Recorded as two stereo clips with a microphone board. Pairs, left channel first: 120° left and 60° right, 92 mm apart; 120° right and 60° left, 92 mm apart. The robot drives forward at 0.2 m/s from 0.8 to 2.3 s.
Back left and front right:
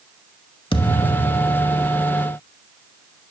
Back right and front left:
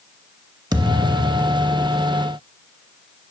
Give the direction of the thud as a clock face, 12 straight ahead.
9 o'clock.